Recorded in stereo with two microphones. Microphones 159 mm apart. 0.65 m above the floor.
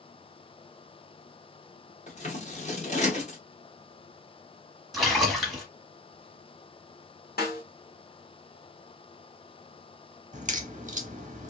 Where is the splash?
Centre (ahead or behind), 1.0 m.